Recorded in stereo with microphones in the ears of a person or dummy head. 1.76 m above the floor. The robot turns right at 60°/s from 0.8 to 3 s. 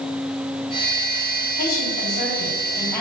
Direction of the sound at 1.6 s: 85° left.